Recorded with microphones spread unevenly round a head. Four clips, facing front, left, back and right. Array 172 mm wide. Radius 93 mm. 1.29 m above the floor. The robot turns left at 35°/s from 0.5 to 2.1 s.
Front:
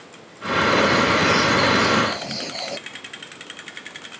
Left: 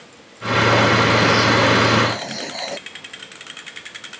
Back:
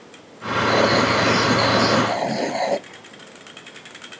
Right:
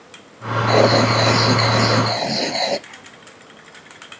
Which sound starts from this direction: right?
Writing, at 0.7 s.